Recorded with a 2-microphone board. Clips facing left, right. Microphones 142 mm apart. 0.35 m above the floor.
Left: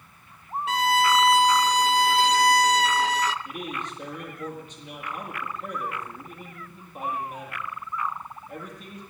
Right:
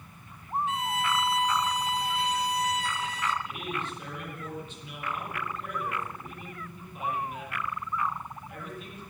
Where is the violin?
85° left, 0.5 m.